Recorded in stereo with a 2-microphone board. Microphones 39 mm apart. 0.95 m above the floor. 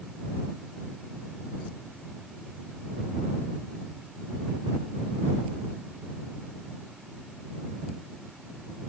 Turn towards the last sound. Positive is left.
No sound to turn to.